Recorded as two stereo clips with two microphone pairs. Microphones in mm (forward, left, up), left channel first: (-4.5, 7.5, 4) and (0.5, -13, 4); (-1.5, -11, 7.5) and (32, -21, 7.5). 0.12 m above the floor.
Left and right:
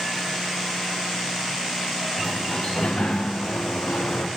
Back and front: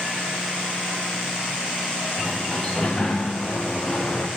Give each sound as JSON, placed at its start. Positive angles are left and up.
{"t": 2.2, "sound": "a sliding door", "azimuth_deg": 90, "distance_m": 2.0}